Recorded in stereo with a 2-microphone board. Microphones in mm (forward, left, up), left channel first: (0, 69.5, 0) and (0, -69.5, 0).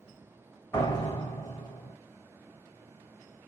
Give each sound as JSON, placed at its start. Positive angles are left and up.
{"t": 0.7, "sound": "a door slam", "side_deg": 25, "distance_m": 1.0}